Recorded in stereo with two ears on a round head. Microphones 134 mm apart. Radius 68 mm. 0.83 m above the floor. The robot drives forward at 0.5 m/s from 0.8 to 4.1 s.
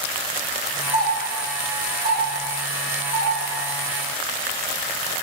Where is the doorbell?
40° right (ahead or behind), 3 m; by 3.3 s 30° right (ahead or behind), 4 m.